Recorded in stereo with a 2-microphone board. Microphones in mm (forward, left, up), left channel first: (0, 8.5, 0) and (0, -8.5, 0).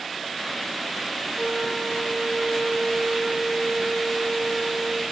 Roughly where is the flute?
Left.